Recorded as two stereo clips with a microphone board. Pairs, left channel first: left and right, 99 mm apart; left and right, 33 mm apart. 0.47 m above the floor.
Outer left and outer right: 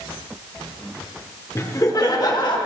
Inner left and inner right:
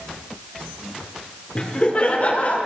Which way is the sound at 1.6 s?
30° left (ahead or behind).